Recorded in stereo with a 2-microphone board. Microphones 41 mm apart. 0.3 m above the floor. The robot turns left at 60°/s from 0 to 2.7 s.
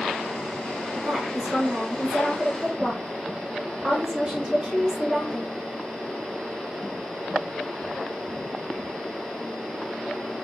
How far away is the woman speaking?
About 1.4 m.